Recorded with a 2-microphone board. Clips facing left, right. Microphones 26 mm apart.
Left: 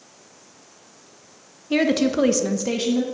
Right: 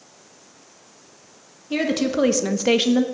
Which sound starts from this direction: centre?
A woman speaking, at 1.7 s.